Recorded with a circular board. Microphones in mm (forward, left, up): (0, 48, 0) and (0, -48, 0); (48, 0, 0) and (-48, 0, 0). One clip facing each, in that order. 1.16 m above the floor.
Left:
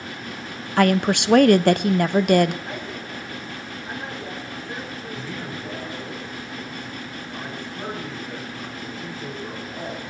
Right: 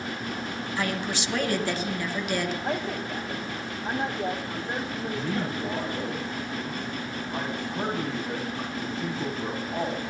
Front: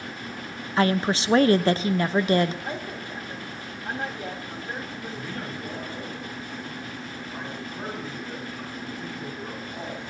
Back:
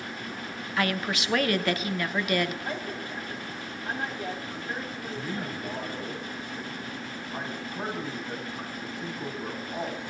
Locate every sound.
0.8 s a woman speaking: 60° left, 0.7 m
2.6 s a man speaking: 70° right, 4.5 m
5.1 s a man speaking: 115° right, 2.5 m